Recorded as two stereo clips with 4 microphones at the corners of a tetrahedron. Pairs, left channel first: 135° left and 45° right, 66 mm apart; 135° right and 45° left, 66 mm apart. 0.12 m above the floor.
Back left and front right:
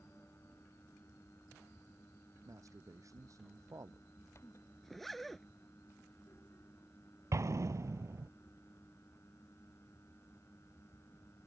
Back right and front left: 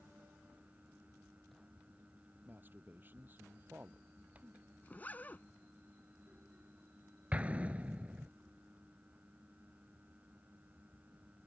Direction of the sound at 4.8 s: 140° right.